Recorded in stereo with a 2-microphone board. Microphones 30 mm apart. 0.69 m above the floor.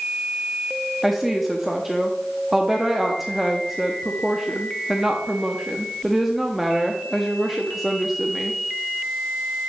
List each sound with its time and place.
1.0 s a woman speaking: 5° right (ahead or behind), 0.7 m